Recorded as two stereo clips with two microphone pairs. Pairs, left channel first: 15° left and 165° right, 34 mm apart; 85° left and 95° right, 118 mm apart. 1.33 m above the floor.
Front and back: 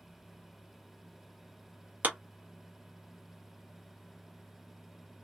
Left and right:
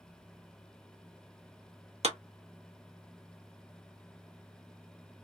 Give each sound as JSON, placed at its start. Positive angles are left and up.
{"t": 2.0, "sound": "a clap", "azimuth_deg": -130, "distance_m": 1.1}